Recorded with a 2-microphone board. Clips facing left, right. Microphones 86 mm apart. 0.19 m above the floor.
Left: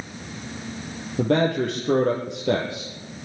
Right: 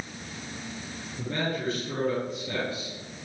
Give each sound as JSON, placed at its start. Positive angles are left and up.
{"t": 1.2, "sound": "a man speaking", "side_deg": 75, "distance_m": 5.0}